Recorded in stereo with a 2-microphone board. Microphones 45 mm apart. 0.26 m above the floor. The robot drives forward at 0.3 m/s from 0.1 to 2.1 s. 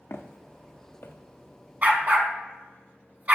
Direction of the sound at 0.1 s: 65° left (ahead or behind).